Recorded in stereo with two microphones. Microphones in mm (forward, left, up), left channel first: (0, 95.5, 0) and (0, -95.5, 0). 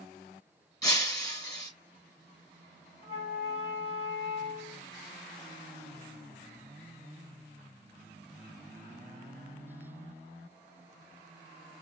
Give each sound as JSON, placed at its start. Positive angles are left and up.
{"t": 0.8, "sound": "breaking glass", "side_deg": 20, "distance_m": 1.8}
{"t": 3.0, "sound": "a flute", "side_deg": 30, "distance_m": 1.6}